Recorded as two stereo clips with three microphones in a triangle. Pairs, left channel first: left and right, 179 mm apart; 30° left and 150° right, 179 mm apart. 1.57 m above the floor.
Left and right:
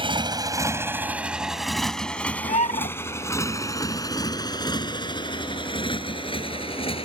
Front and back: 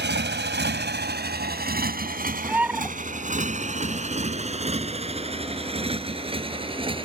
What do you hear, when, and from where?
0.0 s a motorcycle: 150° right; by 7.0 s 150° left
2.4 s a bird: 130° left